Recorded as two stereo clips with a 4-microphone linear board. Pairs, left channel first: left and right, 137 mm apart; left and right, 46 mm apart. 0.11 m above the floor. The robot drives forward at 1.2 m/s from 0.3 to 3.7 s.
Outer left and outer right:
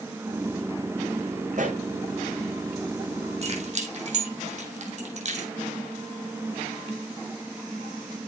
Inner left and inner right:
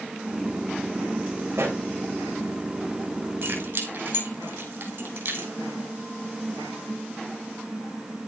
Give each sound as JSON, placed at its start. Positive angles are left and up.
{"t": 1.5, "sound": "a pop", "side_deg": -60, "distance_m": 6.0}
{"t": 3.4, "sound": "keys jangling", "side_deg": -50, "distance_m": 4.0}